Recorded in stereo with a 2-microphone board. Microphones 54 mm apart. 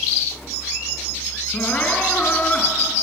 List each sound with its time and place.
1.5 s crying: 30° left (ahead or behind), 3 m